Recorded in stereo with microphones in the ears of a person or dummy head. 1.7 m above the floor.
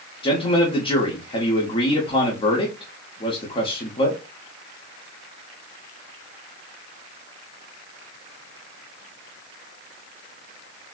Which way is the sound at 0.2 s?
30° left (ahead or behind).